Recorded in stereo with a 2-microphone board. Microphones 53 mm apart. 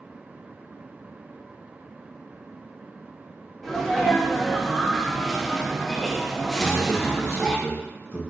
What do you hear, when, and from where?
3.6 s a sneeze: 5° left (ahead or behind), 0.8 m
6.6 s a man speaking: 45° left (ahead or behind), 1.2 m